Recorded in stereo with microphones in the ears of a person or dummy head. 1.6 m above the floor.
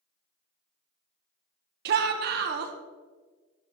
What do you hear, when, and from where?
1.9 s a shout: 55° right (ahead or behind), 1.2 m